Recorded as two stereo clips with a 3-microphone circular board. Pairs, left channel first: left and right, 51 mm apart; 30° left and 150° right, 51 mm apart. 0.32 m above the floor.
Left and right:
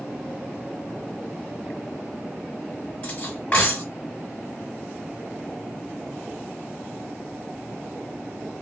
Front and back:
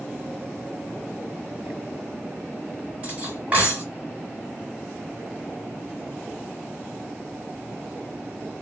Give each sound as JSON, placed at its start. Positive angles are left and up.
{"t": 3.0, "sound": "cutlery clinking", "azimuth_deg": 150, "distance_m": 2.0}